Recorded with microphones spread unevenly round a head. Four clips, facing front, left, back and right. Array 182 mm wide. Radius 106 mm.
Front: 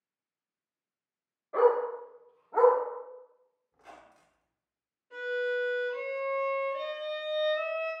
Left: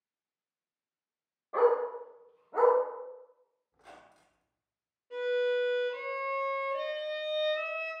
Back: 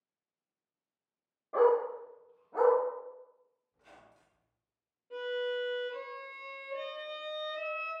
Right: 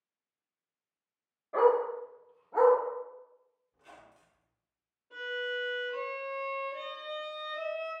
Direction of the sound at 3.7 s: 40° left.